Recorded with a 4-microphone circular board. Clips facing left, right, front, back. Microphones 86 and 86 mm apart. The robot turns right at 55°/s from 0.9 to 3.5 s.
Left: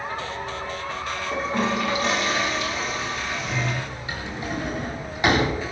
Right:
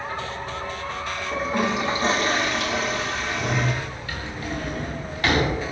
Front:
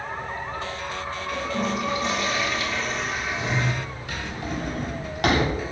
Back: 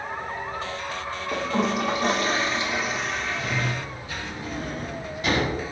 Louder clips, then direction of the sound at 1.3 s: Right 1 dB, back 3 dB; 175° left.